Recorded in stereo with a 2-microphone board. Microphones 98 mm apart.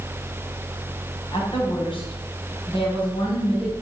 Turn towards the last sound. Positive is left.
turn(degrees=65)  # may be behind; listen again after turning